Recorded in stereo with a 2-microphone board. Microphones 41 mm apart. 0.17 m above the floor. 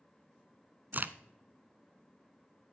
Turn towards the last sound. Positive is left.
turn(degrees=-45)  # may be behind; listen again after turning